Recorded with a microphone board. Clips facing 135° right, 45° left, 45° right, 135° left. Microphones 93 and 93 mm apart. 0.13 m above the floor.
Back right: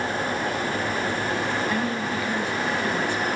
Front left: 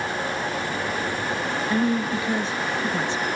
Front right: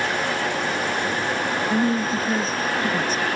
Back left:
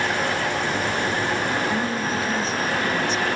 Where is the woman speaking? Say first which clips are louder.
Front left 3 dB, front right 3 dB; 15° right, 1.6 m.